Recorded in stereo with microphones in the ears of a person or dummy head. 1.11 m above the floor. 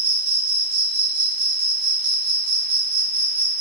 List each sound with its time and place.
0.0 s an insect: 55° right (ahead or behind), 1.7 m